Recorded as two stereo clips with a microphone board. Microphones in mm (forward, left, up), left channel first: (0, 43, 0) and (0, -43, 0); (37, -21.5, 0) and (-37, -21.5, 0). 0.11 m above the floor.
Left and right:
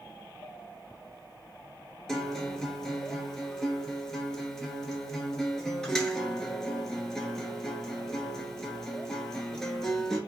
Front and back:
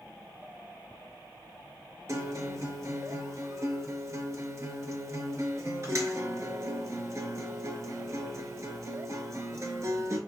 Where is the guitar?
170° left, 0.9 m.